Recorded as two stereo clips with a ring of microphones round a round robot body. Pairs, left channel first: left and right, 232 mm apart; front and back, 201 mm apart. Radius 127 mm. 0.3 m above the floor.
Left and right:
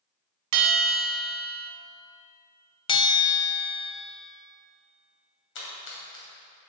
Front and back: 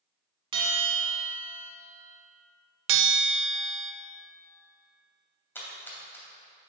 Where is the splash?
80° left, 2.5 m.